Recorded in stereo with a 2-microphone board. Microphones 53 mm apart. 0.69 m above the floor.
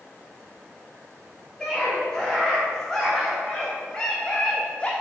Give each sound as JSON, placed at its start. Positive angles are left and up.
{"t": 1.6, "sound": "a scream", "side_deg": 15, "distance_m": 4.0}